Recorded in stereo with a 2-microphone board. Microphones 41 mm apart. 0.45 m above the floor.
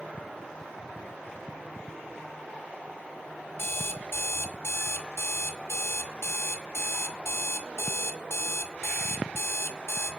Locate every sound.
3.6 s an alarm clock: 70° left (ahead or behind), 0.9 m